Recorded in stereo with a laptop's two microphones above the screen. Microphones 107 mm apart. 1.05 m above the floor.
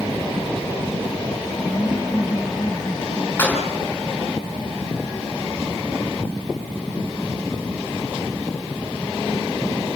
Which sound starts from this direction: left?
Laughter, at 1.7 s.